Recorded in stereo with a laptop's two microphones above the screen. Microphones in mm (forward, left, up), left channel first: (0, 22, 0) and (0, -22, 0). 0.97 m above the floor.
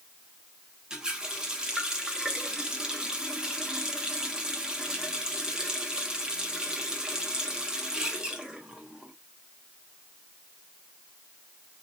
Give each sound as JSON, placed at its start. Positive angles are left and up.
{"t": 0.9, "sound": "a running tap", "side_deg": -20, "distance_m": 0.7}